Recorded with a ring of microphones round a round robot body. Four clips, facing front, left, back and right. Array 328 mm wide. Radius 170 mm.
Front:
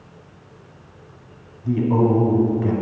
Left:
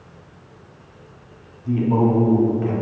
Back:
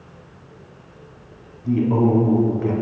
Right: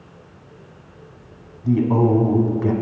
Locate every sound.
1.6 s a man speaking: 90° right, 1.0 m